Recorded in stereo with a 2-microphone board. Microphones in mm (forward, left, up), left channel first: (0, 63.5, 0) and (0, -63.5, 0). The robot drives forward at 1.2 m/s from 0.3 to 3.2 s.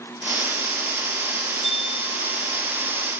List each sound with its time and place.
1.6 s a bell: 50° left (ahead or behind); by 2.5 s 40° left (ahead or behind)